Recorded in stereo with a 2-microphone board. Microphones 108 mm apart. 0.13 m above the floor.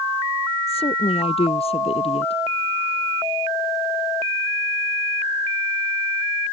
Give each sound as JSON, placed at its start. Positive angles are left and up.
{"t": 0.7, "sound": "a woman speaking", "side_deg": 70}